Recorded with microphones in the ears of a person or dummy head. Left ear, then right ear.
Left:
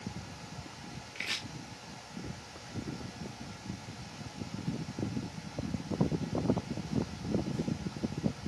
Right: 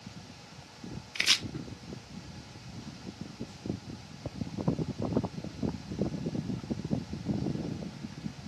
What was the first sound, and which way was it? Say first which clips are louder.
Chopping: right 10 dB; 45° right (ahead or behind).